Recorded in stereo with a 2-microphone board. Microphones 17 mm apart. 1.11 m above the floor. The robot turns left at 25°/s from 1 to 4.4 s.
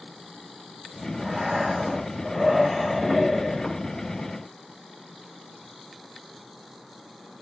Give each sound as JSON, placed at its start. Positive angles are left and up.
{"t": 1.2, "sound": "breathing", "azimuth_deg": -160, "distance_m": 4.0}